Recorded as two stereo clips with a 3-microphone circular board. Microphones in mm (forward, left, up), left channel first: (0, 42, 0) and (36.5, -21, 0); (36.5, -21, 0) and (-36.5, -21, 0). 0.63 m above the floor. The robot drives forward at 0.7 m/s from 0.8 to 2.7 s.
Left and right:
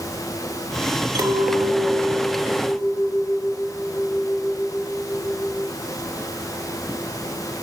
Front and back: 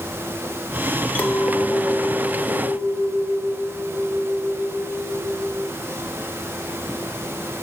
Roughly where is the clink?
Ahead right.